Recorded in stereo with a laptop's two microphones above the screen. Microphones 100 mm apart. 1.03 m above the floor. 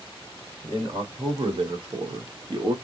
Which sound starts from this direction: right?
A man speaking, at 0.6 s.